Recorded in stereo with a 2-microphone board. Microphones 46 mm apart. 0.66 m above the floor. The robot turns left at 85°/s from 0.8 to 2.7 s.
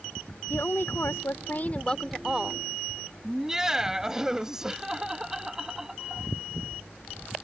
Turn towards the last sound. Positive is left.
turn(degrees=-10)  # may be behind; listen again after turning